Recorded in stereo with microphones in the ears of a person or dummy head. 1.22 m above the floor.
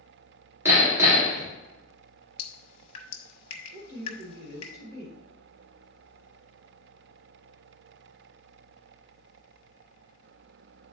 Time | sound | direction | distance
0.7 | hammering | 15° right (ahead or behind) | 1.9 m
2.4 | dripping | 40° left (ahead or behind) | 0.9 m
3.7 | a woman speaking | 35° right (ahead or behind) | 1.2 m